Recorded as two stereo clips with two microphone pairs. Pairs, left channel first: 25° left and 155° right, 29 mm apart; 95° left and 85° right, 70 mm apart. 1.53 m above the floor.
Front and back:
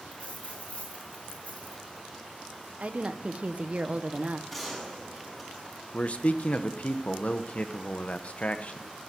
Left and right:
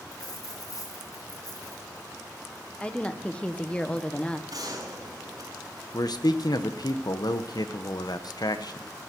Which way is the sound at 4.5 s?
60° right.